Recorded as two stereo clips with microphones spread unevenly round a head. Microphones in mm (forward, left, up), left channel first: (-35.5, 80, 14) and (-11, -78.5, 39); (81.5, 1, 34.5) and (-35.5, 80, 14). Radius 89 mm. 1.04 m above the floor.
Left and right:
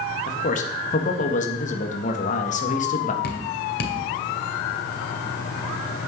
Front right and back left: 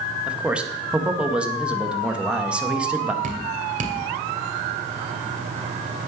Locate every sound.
0.3 s a man speaking: 70° left, 1.7 m
3.2 s dripping: 115° left, 2 m